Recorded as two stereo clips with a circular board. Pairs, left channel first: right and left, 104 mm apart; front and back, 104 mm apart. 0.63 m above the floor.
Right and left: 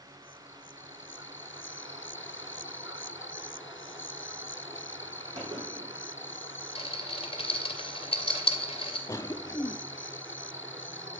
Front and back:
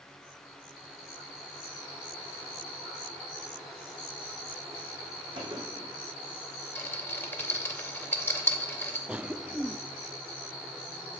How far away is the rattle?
About 2.5 m.